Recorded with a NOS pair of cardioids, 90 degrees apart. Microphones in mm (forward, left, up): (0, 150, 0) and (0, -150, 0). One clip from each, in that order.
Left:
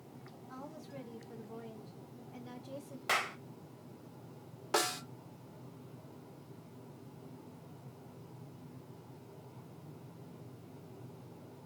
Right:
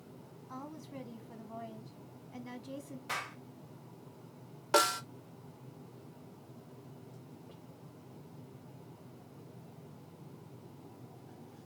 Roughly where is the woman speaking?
Ahead.